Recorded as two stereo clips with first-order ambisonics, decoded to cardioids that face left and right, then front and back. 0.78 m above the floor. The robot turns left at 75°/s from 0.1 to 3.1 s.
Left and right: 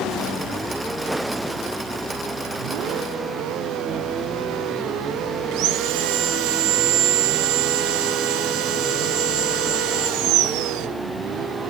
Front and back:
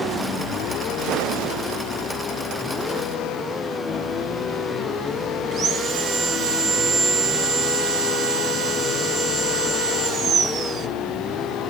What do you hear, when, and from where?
5.5 s sawing: 120° right, 1.7 m